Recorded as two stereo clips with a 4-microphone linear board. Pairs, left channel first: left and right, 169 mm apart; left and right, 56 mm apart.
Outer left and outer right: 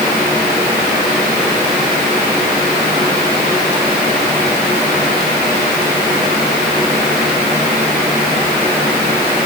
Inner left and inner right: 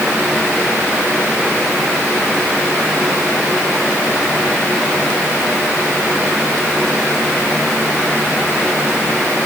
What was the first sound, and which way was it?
Only background noise.